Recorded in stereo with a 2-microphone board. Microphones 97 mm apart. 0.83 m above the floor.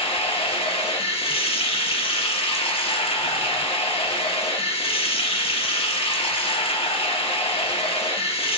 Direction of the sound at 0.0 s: 75° left (ahead or behind).